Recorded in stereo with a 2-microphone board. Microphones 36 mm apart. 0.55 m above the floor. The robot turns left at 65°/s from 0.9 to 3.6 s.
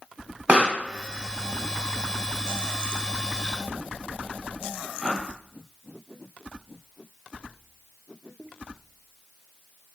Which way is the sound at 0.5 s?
40° right (ahead or behind).